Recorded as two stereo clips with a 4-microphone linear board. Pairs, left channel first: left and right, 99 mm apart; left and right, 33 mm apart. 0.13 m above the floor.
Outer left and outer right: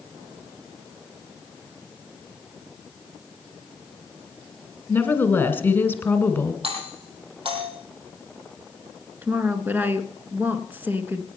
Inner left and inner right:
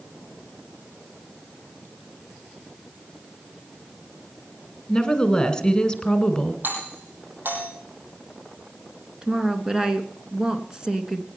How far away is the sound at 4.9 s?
About 1.6 m.